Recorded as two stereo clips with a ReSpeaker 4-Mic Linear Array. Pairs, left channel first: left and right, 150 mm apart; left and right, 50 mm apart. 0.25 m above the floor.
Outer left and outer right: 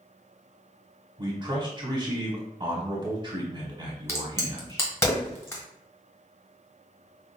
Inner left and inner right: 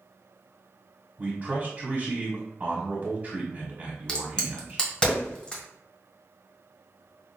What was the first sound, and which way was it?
A man speaking, 30° right (ahead or behind).